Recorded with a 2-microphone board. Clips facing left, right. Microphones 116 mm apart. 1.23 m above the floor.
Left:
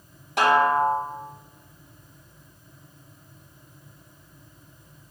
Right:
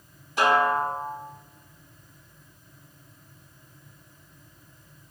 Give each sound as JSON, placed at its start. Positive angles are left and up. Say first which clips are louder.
{"t": 0.4, "sound": "a snare drum", "louder": "left 3 dB", "side_deg": 75, "distance_m": 4.0}